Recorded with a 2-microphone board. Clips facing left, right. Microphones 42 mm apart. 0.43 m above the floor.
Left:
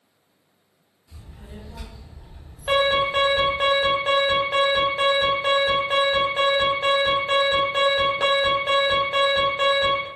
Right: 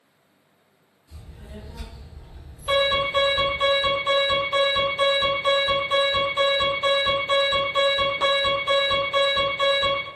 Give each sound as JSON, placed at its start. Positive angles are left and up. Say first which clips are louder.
{"t": 1.1, "sound": "a child speaking", "louder": "even", "side_deg": 40, "distance_m": 1.4}
{"t": 2.7, "sound": "an alarm", "louder": "left 2 dB", "side_deg": 50, "distance_m": 1.7}